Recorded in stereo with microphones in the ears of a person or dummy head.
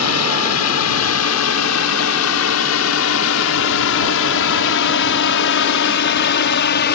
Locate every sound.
0.0 s a drone: 80° left; by 7.0 s 55° left (ahead or behind)